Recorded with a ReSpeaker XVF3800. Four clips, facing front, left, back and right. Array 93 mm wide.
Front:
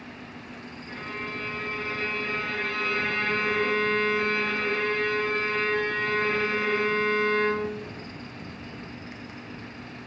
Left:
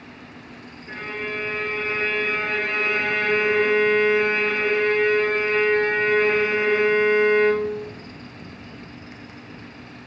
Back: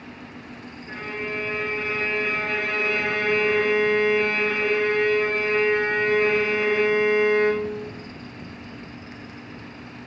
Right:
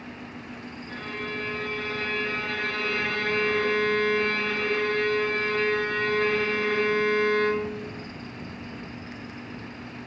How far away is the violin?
About 0.7 m.